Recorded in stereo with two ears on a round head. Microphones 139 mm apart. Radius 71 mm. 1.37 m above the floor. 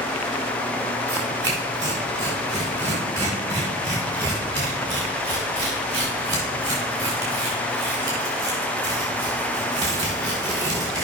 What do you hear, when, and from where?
1.1 s tearing paper: 25° right (ahead or behind), 5 m